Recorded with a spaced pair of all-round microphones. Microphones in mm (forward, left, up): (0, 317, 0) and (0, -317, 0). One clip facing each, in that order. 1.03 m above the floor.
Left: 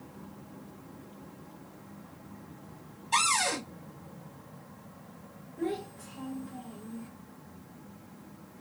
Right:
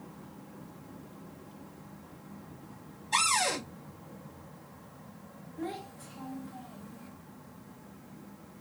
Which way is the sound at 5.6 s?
55° left (ahead or behind).